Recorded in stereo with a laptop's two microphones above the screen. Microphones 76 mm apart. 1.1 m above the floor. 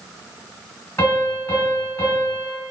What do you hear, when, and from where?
1.0 s a piano: 35° left (ahead or behind), 1.4 m